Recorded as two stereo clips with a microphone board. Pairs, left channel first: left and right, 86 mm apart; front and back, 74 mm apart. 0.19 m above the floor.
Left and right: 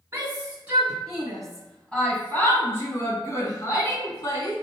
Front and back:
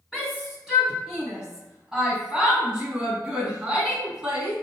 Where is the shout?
100° right, 1.4 m; by 4.5 s 105° left, 2 m.